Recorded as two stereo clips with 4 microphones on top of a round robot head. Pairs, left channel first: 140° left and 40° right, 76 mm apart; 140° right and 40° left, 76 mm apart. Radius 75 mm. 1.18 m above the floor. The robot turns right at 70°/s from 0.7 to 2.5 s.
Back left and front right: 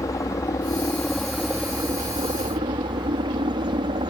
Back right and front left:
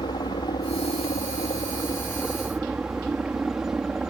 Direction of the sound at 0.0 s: 170° right.